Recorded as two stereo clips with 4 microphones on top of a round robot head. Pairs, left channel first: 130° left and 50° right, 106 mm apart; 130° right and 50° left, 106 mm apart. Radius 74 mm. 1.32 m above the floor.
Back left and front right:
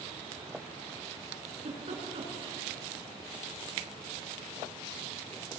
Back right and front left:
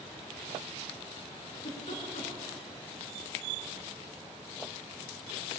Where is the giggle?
90° right, 5.5 m.